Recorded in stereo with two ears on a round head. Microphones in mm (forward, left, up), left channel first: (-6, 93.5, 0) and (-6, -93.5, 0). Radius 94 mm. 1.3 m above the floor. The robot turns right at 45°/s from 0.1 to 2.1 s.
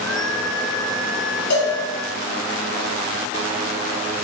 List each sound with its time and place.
1.5 s a cowbell: 75° left (ahead or behind), 3 m; by 1.7 s 70° left (ahead or behind), 3 m